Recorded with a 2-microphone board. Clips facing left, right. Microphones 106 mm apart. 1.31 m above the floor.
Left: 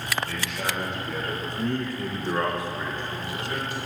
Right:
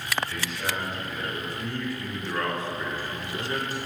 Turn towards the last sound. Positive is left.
turn(degrees=-40)  # may be behind; listen again after turning